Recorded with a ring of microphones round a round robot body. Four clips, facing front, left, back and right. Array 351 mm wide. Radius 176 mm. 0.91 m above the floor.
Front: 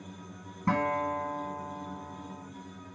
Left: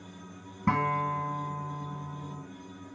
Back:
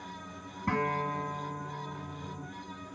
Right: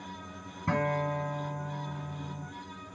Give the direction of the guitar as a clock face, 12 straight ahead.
10 o'clock.